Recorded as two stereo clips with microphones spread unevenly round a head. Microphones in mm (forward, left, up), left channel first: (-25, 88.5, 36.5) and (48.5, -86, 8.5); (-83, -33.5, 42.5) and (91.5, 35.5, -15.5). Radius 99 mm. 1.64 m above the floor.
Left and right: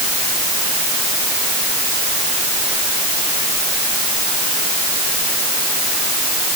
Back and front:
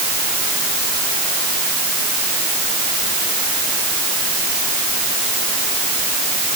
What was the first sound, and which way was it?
Only background noise.